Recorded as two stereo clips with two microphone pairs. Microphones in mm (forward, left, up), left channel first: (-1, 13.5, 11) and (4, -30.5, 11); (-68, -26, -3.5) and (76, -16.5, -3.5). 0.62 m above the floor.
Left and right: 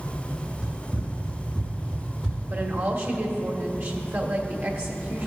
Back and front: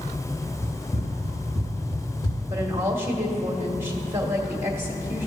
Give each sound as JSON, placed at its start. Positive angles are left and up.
{"t": 0.6, "sound": "running footsteps", "azimuth_deg": -145, "distance_m": 1.7}
{"t": 2.5, "sound": "a woman speaking", "azimuth_deg": -65, "distance_m": 1.8}